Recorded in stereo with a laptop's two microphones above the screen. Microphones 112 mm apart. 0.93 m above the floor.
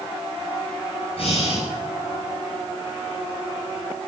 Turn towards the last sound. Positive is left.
turn(degrees=65)  # may be behind; listen again after turning